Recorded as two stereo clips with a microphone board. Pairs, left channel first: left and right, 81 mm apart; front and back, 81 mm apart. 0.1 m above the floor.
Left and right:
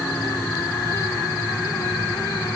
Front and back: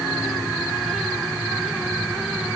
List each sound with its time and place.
Only background noise.